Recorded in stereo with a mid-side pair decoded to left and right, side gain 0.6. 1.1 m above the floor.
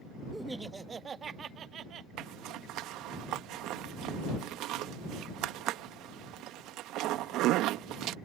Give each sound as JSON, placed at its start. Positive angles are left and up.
{"t": 0.3, "sound": "laughter", "azimuth_deg": 0}
{"t": 2.2, "sound": "a zipper", "azimuth_deg": -65}